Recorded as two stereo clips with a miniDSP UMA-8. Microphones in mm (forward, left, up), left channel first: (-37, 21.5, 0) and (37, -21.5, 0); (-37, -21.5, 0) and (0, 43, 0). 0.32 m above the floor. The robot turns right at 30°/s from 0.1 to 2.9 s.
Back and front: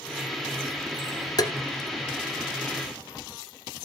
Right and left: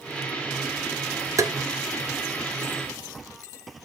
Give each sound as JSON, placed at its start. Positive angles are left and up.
{"t": 1.4, "sound": "tapping", "azimuth_deg": 105, "distance_m": 1.1}